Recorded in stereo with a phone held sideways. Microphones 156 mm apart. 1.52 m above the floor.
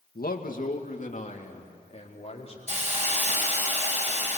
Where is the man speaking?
70° left (ahead or behind), 2 m; by 2.7 s 40° left (ahead or behind), 5.5 m.